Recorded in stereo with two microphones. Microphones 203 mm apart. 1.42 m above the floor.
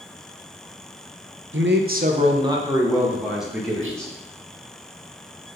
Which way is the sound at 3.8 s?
70° right (ahead or behind).